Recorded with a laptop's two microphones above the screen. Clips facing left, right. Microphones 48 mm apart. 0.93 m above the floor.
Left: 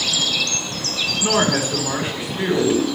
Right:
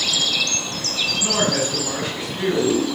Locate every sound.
1.2 s a woman speaking: 15° left (ahead or behind), 1.4 m